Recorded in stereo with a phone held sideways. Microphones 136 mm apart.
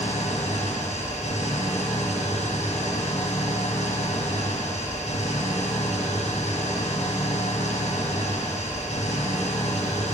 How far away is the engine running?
About 6.5 m.